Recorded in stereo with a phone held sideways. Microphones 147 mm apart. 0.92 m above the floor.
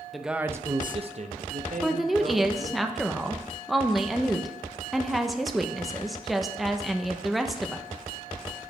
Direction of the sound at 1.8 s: Centre (ahead or behind).